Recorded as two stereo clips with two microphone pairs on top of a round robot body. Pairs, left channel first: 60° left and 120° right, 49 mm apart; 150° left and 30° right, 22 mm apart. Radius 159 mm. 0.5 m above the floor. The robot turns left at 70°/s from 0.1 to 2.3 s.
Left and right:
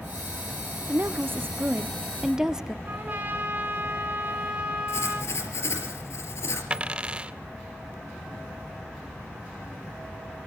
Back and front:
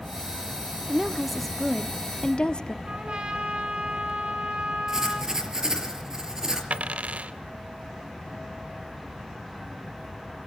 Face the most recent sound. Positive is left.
turn(degrees=-45)